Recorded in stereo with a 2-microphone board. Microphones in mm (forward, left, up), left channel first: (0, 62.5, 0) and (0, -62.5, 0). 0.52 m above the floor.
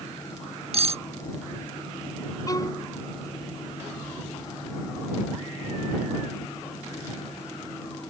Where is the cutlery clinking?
55° right (ahead or behind).